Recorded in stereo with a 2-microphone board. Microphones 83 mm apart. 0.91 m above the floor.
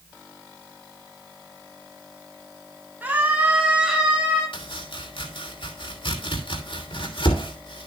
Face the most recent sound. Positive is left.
turn(degrees=80)